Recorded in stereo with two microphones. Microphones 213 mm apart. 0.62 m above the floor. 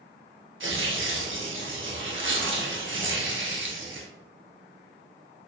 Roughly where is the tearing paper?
Right.